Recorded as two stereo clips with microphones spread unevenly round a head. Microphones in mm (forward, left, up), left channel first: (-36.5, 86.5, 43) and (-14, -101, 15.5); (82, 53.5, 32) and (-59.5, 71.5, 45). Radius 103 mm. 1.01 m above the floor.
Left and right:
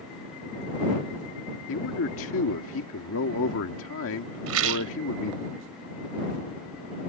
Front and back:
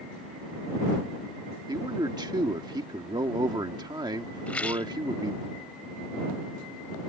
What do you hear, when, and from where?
1.7 s a man speaking: 110° left
4.5 s a rattle: 95° right